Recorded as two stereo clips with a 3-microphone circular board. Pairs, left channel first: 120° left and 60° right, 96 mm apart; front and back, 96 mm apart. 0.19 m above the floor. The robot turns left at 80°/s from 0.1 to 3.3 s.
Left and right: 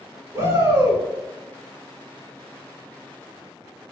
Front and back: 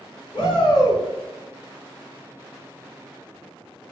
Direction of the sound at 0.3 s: 5° right.